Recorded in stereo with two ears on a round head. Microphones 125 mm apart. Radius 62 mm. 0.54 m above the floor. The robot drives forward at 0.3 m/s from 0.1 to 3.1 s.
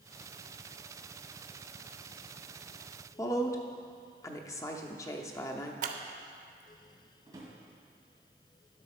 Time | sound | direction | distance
3.2 | a woman speaking | 25° left (ahead or behind) | 0.7 m
5.8 | scissors | 60° right (ahead or behind) | 0.7 m
7.3 | a drawer | 25° right (ahead or behind) | 2.0 m